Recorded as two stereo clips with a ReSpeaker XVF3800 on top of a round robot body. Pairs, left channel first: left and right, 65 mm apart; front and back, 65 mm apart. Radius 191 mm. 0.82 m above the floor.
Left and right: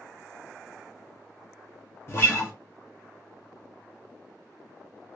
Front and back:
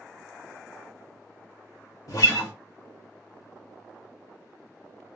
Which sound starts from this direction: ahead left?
A guitar, at 2.1 s.